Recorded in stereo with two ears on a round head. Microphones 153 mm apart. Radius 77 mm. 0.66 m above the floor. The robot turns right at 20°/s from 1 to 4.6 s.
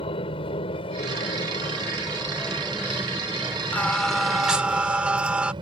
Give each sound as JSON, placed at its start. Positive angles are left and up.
{"t": 0.0, "sound": "an aircraft", "azimuth_deg": 140}
{"t": 3.7, "sound": "singing", "side_deg": 10}